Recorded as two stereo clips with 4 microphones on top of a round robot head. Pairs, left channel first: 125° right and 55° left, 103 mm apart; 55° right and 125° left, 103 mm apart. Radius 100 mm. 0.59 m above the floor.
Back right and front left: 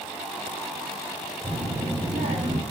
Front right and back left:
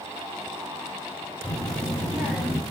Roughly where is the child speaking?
Ahead left.